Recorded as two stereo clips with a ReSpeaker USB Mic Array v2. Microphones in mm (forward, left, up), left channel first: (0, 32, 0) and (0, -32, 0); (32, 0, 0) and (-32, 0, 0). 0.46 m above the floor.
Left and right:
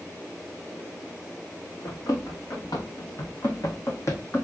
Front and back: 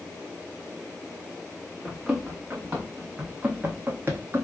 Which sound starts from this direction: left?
Running footsteps, at 1.9 s.